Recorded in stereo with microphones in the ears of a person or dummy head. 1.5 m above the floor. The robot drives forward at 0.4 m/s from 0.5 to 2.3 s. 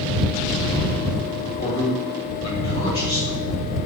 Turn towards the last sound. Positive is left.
turn(degrees=20)  # may be behind; listen again after turning